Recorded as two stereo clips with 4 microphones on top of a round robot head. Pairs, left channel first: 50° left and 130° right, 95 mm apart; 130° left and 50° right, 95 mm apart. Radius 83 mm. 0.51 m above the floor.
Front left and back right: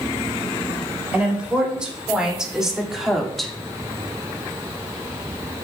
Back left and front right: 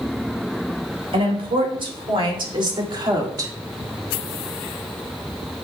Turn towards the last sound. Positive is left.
turn(degrees=-40)